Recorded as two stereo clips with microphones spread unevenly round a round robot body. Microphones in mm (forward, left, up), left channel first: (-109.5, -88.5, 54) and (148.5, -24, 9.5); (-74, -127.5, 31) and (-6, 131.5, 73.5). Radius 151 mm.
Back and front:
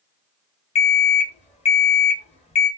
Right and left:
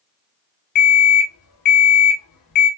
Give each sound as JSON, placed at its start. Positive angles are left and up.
{"t": 0.8, "sound": "an alarm clock", "azimuth_deg": -100, "distance_m": 1.1}